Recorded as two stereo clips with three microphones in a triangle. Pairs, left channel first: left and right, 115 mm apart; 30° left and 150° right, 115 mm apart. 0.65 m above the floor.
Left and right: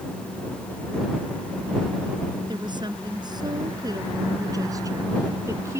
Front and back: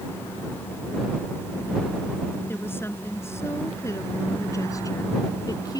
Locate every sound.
2.5 s a woman speaking: 40° right; by 5.8 s 25° right